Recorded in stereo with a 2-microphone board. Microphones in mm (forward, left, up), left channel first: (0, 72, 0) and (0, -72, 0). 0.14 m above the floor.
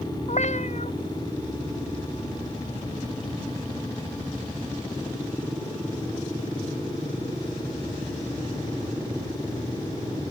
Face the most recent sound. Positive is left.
turn(degrees=55)  # may be behind; listen again after turning